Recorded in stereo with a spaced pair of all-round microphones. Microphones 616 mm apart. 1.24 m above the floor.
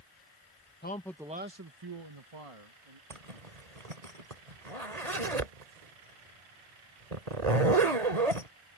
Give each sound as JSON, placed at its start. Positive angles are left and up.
{"t": 0.8, "sound": "a man speaking", "side_deg": 15}
{"t": 3.1, "sound": "a zipper", "side_deg": -75}